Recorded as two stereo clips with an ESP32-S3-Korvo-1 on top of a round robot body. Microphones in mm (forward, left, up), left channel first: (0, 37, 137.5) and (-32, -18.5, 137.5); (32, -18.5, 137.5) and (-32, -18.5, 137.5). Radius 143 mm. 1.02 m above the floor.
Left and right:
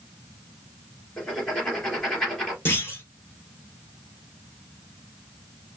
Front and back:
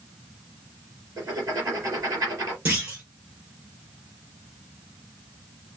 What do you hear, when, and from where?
1.2 s writing: 145° left, 3.5 m
2.6 s a clunk: 120° left, 3 m